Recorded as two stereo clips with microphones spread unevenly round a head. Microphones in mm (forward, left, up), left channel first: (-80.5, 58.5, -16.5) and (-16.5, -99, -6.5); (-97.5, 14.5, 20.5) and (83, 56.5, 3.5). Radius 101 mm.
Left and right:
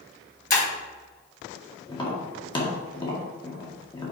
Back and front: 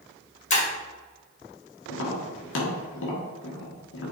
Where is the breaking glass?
150° left, 2.5 m.